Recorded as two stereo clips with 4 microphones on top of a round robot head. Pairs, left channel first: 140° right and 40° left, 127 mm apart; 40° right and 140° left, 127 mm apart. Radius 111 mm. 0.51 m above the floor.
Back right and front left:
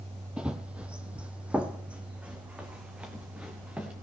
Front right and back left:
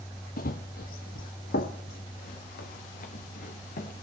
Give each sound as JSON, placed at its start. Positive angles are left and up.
{"t": 0.4, "sound": "running footsteps", "azimuth_deg": -40, "distance_m": 0.7}